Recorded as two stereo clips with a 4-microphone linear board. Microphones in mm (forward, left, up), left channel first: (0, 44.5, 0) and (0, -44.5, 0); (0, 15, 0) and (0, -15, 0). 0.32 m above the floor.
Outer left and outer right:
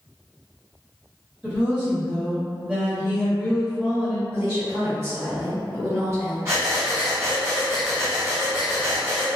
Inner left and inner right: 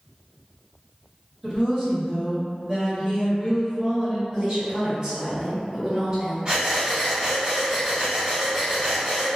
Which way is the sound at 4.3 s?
30° right (ahead or behind).